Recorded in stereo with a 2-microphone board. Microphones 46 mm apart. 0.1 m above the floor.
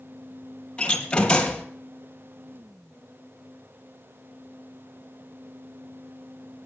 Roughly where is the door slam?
Left.